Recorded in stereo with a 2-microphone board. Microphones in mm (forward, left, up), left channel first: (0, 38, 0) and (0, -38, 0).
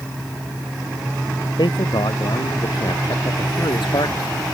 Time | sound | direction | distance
1.6 | a man speaking | 75° left (ahead or behind) | ?